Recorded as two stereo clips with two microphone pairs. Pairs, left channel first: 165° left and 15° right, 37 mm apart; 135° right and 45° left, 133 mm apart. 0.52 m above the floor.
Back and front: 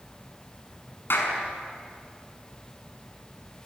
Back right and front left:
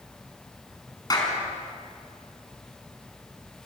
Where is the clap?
170° left, 5.5 m.